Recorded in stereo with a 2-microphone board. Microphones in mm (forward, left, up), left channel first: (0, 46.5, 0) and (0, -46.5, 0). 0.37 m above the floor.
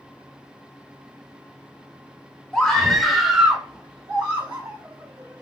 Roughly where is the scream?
Centre.